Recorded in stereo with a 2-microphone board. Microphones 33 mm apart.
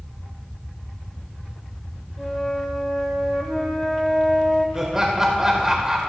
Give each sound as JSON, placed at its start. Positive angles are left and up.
{"t": 2.2, "sound": "a flute", "side_deg": 5, "distance_m": 1.2}
{"t": 4.8, "sound": "laughter", "side_deg": -20, "distance_m": 0.8}